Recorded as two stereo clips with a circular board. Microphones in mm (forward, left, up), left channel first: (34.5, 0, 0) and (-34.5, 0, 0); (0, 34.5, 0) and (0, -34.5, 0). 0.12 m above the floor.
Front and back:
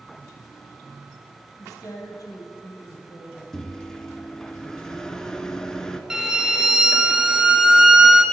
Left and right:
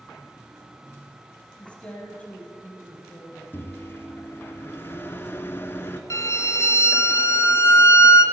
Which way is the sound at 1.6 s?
20° left.